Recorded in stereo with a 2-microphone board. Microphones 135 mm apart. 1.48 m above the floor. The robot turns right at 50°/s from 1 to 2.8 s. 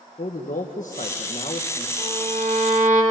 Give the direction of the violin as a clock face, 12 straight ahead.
4 o'clock.